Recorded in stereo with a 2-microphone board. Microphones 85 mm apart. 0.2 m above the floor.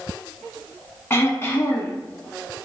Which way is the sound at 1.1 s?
30° left (ahead or behind).